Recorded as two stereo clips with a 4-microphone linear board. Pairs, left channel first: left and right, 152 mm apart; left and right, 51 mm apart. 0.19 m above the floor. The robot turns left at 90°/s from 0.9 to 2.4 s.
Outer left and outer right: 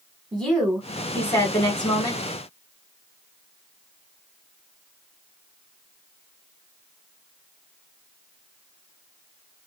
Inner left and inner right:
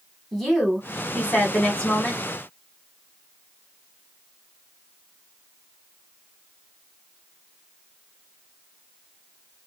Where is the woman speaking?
5° left (ahead or behind), 1.2 m; by 2.2 s 20° left (ahead or behind), 1.2 m.